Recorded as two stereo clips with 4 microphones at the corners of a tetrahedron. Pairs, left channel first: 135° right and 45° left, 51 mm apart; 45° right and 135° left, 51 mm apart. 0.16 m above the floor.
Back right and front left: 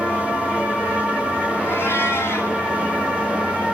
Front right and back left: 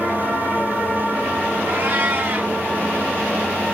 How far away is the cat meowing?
About 4.5 m.